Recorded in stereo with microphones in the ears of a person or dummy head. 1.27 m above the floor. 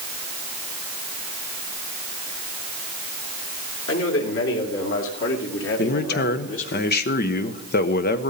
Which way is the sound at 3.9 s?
85° left.